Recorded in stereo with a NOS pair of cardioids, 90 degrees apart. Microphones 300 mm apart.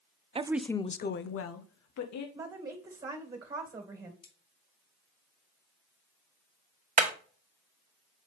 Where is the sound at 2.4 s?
20° right, 1.9 m.